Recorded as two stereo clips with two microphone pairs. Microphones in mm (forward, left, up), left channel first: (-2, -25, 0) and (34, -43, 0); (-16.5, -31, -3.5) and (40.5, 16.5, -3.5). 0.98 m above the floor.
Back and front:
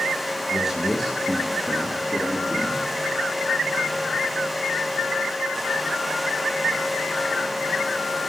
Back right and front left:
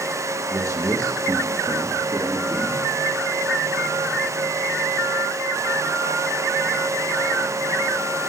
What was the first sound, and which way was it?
A man speaking, 55° left.